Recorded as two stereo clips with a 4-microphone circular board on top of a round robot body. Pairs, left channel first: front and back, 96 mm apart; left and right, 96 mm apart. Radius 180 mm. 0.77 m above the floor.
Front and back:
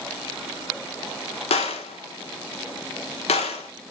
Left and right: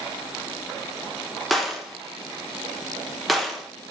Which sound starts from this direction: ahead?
A gunshot, at 1.5 s.